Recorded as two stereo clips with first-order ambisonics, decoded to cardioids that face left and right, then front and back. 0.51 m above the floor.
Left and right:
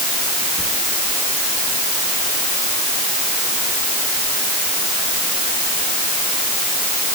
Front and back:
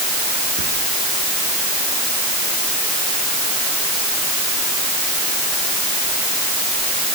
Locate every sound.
0.6 s whispering: 170° left, 5 m